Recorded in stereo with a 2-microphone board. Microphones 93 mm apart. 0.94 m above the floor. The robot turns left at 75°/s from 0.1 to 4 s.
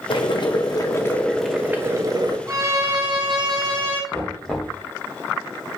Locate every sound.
0.1 s boiling: 100° left, 0.6 m; by 2.4 s 70° right, 0.6 m
2.5 s a violin: 40° right, 0.9 m; by 4.0 s 155° right, 0.9 m
4.1 s knocking: 5° left (ahead or behind), 0.8 m